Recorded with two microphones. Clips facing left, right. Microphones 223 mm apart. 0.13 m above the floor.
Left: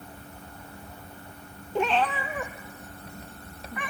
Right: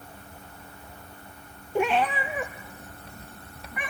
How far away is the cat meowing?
About 0.7 m.